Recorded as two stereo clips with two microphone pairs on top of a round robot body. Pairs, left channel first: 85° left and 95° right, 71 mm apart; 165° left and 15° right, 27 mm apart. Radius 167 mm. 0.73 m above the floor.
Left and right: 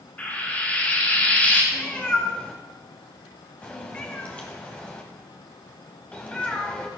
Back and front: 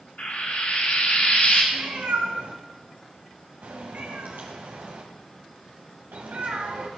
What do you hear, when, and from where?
0.2 s frying: 150° left, 7 m
1.7 s a cat meowing: 10° left, 1.3 m